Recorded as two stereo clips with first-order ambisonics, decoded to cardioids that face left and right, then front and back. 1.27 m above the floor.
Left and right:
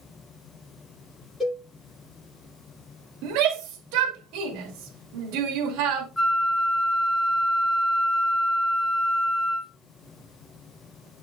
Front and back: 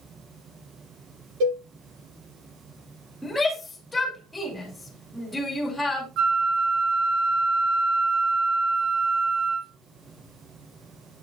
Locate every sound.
1.4 s a cowbell: 170° left, 6.5 m
3.2 s a shout: 80° right, 2 m
6.2 s a flute: 170° left, 1.0 m